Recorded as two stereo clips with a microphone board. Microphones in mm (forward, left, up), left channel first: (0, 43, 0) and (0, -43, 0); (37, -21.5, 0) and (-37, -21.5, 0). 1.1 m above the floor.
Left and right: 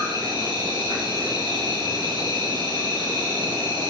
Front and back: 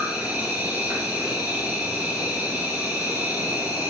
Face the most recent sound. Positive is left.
turn(degrees=-115)